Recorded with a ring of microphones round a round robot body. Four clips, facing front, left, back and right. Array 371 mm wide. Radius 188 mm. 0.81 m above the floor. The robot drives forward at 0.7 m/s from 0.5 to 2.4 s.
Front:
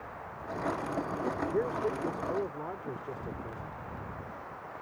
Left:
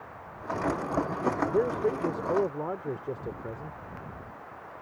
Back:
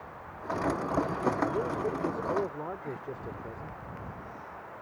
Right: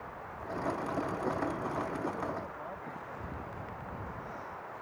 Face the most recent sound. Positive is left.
turn(degrees=100)